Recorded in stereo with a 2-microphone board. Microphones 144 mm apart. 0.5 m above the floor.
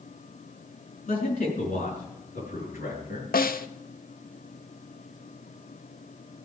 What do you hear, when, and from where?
1.1 s a man speaking: 70° left (ahead or behind), 5 m; by 3.2 s 80° left, 7 m
3.3 s a snare drum: 85° left, 0.7 m